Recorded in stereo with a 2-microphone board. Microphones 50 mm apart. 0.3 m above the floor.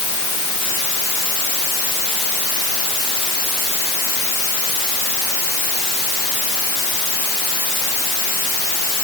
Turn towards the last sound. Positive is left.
No sound to turn to.